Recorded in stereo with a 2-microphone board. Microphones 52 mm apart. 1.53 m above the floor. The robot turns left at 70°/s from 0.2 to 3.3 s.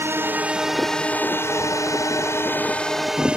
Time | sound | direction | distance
0.0 | a drone | 45° right (ahead or behind) | ?